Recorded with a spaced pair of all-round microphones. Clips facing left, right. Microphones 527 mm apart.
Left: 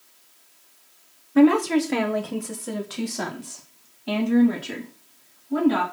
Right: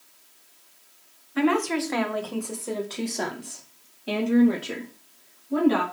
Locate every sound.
1.4 s a woman speaking: 65° left (ahead or behind), 1.6 m; by 5.8 s 10° left (ahead or behind), 4 m